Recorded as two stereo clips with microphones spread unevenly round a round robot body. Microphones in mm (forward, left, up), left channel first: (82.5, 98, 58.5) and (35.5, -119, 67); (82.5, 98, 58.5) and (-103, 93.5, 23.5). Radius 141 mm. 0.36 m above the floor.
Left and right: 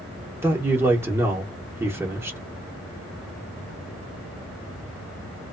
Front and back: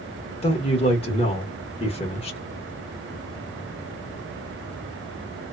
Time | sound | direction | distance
0.4 | a man speaking | 35° right | 1.0 m